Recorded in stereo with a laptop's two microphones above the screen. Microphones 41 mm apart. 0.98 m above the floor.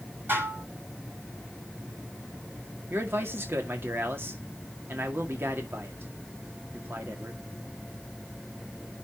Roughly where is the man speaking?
Right.